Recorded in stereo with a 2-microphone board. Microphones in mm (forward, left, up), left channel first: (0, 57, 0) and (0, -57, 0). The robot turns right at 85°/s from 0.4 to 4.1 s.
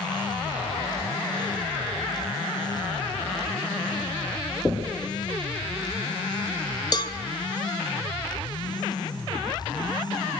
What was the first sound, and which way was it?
Knocking, 10° left (ahead or behind).